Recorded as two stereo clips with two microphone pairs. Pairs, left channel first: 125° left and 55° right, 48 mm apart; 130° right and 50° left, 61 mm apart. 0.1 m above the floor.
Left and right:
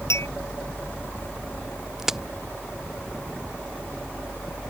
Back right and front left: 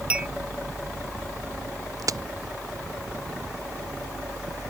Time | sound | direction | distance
0.1 | a clink | 115° left | ?
2.0 | a crack | 25° left | ?